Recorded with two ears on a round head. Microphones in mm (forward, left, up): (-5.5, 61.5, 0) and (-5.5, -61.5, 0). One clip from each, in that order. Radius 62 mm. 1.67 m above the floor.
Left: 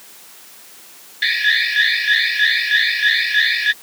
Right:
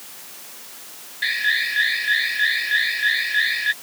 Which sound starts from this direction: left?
An alarm, at 1.2 s.